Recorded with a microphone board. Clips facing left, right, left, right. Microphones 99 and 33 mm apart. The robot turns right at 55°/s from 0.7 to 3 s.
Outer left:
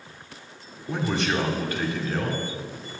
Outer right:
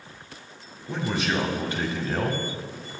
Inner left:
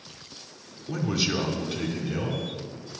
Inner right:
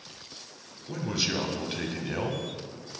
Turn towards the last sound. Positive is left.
turn(degrees=-75)